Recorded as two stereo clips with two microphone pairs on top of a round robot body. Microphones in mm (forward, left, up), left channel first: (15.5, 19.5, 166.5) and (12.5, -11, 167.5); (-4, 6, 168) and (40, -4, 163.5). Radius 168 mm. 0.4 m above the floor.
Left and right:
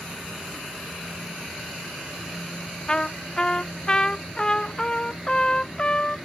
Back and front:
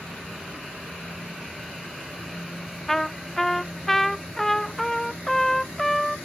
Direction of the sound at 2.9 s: 75° left.